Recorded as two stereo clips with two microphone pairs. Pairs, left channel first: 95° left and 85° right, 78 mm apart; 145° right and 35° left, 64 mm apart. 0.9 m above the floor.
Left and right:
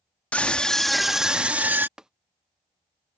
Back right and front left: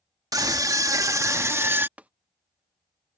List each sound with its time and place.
0.3 s a scream: 25° left; by 1.9 s 20° right
2.0 s tapping: 10° right